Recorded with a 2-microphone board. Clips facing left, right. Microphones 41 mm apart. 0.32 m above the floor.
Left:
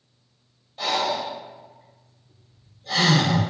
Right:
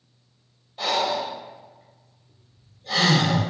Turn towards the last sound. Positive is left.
turn(degrees=-5)  # may be behind; listen again after turning